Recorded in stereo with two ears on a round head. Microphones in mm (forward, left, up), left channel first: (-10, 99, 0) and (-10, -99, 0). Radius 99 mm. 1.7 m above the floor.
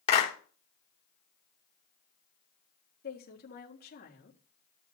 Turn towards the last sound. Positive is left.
turn(degrees=45)  # may be behind; listen again after turning